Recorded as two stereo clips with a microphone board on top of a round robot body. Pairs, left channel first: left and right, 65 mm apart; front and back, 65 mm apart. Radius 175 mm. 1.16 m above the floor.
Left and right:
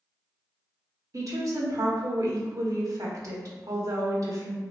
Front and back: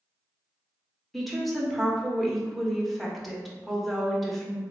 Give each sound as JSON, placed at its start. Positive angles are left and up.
{"t": 1.1, "sound": "a woman speaking", "azimuth_deg": -90, "distance_m": 1.2}